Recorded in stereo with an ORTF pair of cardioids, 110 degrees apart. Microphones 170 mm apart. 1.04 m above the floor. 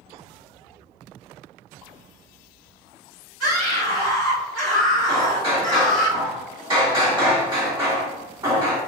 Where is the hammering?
25° right, 2.0 m.